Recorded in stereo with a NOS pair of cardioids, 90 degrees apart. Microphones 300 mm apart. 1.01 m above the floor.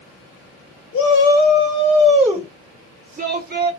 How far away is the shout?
About 1.2 m.